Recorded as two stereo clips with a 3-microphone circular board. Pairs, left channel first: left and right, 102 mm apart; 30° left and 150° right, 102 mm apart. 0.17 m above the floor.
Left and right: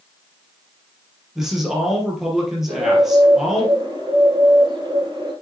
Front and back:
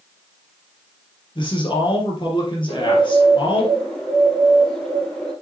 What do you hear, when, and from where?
1.4 s a man speaking: 5° right, 3.5 m
2.7 s a bird: 50° right, 3.5 m